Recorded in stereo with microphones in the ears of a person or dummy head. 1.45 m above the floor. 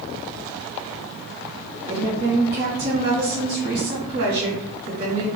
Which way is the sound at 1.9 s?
45° right (ahead or behind).